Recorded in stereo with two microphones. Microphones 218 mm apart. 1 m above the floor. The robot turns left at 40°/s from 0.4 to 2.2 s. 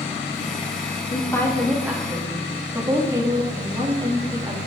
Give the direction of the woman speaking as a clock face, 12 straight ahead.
11 o'clock.